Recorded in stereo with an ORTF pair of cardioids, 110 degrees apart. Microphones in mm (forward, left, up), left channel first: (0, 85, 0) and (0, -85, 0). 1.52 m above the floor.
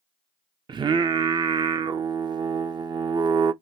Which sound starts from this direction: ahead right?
Singing, at 0.7 s.